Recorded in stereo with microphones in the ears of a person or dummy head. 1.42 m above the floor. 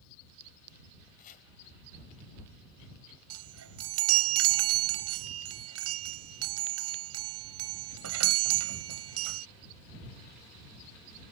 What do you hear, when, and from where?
1.2 s chopping: 50° left (ahead or behind)
3.3 s a chime: 85° right